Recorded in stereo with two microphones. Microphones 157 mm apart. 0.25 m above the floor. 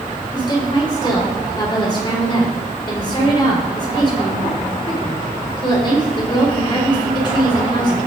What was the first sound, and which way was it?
A woman speaking, 30° left (ahead or behind).